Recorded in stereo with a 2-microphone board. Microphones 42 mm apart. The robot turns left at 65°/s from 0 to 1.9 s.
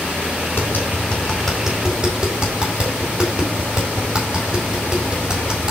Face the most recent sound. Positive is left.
turn(degrees=-20)  # may be behind; listen again after turning